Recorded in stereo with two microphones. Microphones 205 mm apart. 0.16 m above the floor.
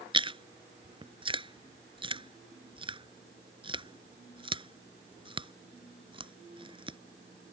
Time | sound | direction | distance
0.1 | chewing | 25° right (ahead or behind) | ?